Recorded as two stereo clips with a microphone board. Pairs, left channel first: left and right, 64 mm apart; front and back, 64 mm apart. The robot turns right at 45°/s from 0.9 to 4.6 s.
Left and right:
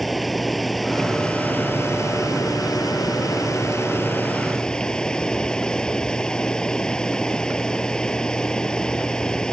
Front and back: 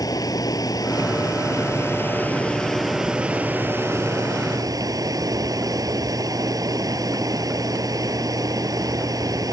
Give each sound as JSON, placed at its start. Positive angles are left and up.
{"t": 0.0, "sound": "running water", "azimuth_deg": 5}